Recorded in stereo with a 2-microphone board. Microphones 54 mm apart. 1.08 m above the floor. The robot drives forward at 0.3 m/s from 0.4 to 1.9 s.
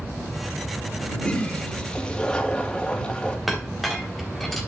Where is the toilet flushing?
20° left (ahead or behind), 1.7 m.